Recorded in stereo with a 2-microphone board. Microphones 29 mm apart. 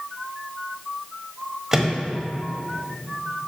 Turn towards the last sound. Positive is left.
turn(degrees=-15)  # may be behind; listen again after turning